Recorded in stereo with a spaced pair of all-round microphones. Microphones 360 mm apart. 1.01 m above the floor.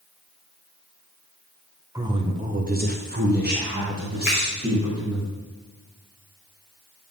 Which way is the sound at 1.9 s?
10° right (ahead or behind).